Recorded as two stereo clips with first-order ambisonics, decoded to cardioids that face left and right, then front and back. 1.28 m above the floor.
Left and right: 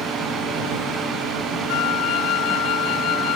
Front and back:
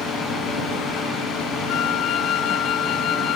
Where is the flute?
50° left.